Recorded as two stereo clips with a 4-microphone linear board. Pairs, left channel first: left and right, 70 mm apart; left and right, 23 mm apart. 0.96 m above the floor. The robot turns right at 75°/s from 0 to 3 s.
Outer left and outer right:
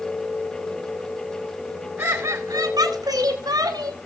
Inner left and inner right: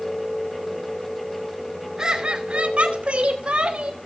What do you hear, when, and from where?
2.0 s laughter: 145° right, 4 m; by 4.0 s 70° right, 4 m